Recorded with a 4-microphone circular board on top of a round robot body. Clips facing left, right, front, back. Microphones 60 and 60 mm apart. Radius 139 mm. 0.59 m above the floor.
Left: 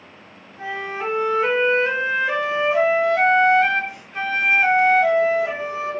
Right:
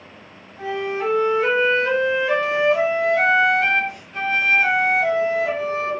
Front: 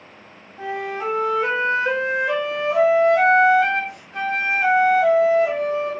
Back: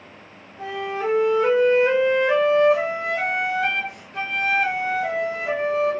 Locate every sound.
0.6 s a flute: 10° left, 0.7 m